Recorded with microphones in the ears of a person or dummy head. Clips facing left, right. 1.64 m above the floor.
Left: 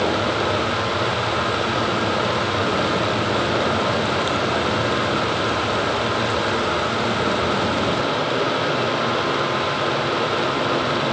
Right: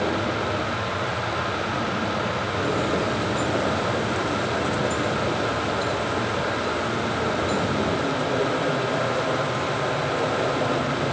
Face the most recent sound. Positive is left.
No sound to turn to.